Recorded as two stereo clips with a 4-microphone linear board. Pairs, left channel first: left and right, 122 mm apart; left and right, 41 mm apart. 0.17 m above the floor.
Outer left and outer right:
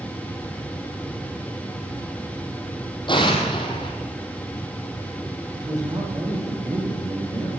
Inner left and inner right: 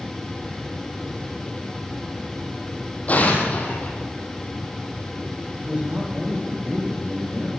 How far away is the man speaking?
About 7 m.